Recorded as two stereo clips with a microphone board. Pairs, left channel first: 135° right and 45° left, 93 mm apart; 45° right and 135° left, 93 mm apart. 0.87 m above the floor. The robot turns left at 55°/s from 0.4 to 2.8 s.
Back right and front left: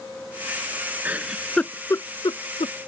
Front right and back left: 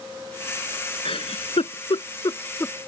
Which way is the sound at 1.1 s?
25° right.